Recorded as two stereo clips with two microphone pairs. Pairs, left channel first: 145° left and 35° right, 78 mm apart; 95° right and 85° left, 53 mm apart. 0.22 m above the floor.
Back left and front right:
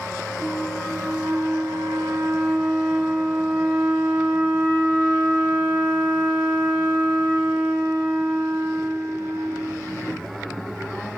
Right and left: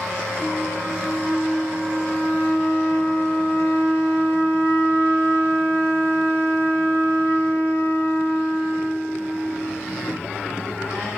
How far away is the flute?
About 8.5 m.